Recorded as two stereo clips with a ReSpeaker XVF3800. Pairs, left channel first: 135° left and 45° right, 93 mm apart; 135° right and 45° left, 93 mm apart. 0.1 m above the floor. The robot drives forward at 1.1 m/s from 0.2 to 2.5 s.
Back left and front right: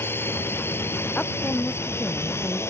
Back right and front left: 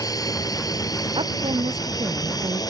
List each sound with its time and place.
0.0 s a drone: 165° right; by 2.7 s 170° right
1.1 s a woman speaking: 60° left; by 2.6 s 65° left